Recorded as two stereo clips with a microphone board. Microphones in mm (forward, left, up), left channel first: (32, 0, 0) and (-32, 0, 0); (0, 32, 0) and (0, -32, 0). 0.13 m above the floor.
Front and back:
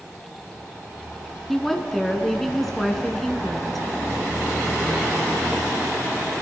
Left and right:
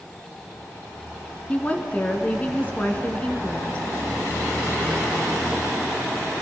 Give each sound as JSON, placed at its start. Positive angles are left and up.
{"t": 1.5, "sound": "a woman speaking", "azimuth_deg": 85, "distance_m": 1.1}